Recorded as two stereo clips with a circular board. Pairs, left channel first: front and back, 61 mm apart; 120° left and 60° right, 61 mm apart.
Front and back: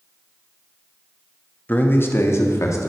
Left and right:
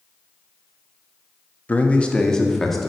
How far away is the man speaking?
About 1.1 m.